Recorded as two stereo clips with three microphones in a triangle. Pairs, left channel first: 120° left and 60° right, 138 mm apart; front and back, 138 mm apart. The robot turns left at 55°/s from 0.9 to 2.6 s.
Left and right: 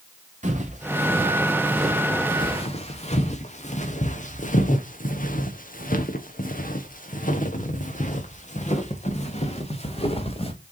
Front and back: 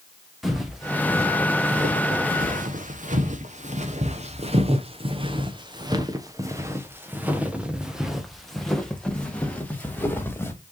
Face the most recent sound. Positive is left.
turn(degrees=75)